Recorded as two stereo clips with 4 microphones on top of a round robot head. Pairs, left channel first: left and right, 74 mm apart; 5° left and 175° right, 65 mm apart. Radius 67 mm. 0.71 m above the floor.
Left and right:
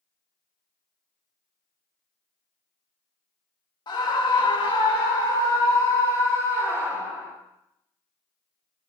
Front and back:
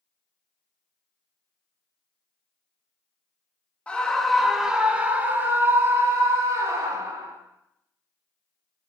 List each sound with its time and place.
3.9 s a scream: 75° left, 1.8 m; by 7.3 s 155° left, 3.5 m